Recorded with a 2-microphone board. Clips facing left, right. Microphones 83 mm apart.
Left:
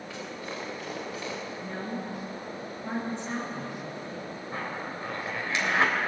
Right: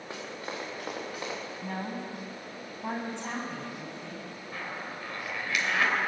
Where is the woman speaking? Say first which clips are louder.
Even; 90° right, 7 m.